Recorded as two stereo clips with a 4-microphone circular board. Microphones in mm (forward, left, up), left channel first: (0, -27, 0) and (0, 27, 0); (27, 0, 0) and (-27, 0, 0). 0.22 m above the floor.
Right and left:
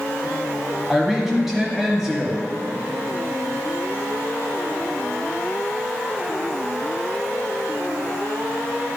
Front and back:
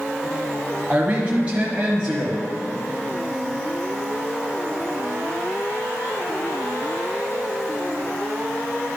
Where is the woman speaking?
165° left, 1.1 m.